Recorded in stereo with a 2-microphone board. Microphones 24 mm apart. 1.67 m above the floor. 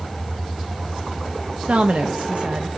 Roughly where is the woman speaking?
Right.